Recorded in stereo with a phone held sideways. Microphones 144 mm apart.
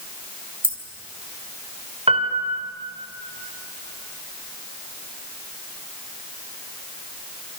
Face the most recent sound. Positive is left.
turn(degrees=-45)  # may be behind; listen again after turning